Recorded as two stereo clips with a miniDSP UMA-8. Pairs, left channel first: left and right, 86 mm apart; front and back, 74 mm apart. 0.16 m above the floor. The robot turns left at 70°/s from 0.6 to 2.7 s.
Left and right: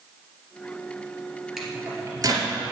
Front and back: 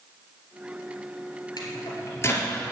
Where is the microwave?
5° right, 2.5 m; by 2.5 s 70° right, 2.5 m.